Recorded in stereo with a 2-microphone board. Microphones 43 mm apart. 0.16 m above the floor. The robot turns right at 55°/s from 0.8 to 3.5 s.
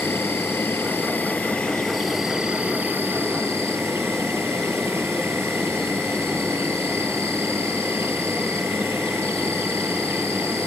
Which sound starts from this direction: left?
An insect, at 0.0 s.